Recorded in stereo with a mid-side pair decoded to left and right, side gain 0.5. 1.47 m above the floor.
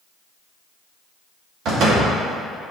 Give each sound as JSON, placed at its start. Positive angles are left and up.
{"t": 1.6, "sound": "a door slam", "azimuth_deg": -70, "distance_m": 2.5}